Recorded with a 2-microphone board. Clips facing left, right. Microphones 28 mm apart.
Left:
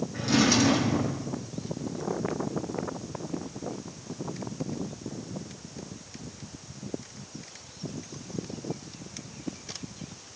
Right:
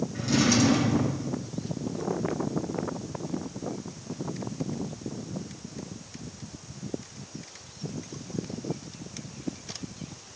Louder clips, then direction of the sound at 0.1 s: Left 1 dB; 30° left (ahead or behind).